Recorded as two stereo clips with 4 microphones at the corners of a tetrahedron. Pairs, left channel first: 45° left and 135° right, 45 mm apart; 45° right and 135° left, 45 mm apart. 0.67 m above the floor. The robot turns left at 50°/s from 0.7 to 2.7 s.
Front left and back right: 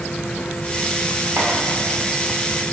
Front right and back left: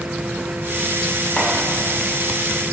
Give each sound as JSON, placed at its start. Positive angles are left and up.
{"t": 1.4, "sound": "chopping", "azimuth_deg": -115, "distance_m": 2.5}